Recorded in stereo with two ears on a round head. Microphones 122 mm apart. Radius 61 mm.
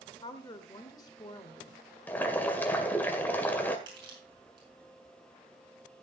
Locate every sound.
0.2 s a woman speaking: 30° left (ahead or behind), 1.5 m
2.1 s boiling: 15° left (ahead or behind), 1.9 m
3.9 s crushing: 35° right (ahead or behind), 6.5 m